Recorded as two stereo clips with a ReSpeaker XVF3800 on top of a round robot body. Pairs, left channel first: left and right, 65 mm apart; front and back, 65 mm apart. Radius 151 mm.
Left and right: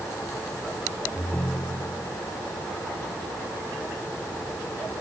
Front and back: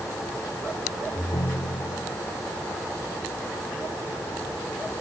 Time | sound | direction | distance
1.1 | a ringtone | 20° left | ?